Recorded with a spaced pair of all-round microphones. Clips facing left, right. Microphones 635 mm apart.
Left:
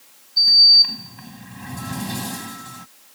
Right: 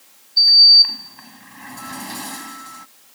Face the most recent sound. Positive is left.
turn(degrees=60)  # may be behind; listen again after turning